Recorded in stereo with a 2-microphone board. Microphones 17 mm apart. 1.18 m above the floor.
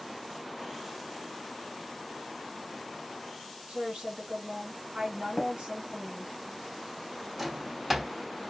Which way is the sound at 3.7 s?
70° right (ahead or behind).